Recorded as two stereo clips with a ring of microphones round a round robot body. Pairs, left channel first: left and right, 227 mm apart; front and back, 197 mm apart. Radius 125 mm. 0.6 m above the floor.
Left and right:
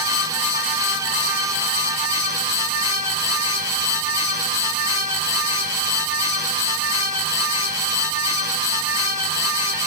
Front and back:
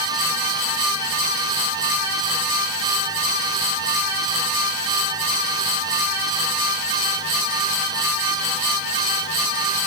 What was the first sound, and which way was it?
Only background noise.